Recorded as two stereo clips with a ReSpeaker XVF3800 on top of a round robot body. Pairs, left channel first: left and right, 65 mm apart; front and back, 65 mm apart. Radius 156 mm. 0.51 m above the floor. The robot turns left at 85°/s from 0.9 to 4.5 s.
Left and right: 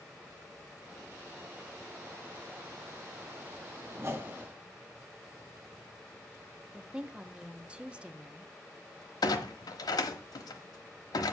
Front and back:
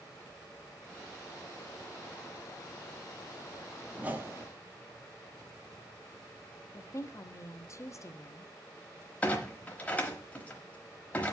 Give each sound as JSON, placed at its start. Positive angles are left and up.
{"t": 4.0, "sound": "a whoosh", "azimuth_deg": -110, "distance_m": 1.6}
{"t": 6.7, "sound": "a woman speaking", "azimuth_deg": -20, "distance_m": 1.0}
{"t": 9.2, "sound": "a clunk", "azimuth_deg": 70, "distance_m": 1.0}